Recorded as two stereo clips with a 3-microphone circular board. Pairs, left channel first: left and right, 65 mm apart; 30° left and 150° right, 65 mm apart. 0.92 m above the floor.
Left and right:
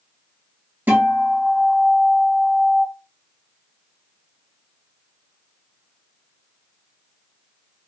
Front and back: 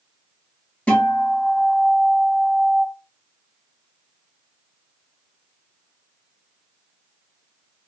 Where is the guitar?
40° right, 1.3 m.